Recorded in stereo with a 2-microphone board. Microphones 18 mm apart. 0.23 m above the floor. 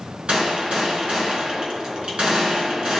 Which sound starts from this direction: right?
A gunshot, at 0.3 s.